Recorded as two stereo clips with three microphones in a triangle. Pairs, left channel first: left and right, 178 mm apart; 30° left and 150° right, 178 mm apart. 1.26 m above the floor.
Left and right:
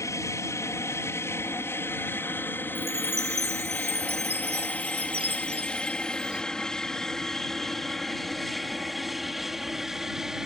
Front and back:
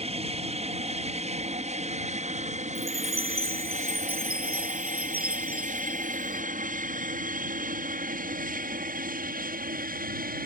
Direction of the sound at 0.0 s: 160° left.